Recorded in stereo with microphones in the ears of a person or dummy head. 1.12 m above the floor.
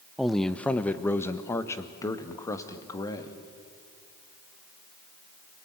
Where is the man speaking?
5° left (ahead or behind), 0.7 m; by 3.4 s 25° left (ahead or behind), 2 m.